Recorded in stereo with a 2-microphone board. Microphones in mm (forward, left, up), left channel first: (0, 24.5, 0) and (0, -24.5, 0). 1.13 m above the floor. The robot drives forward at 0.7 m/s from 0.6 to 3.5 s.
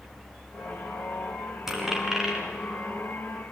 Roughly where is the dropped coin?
Centre.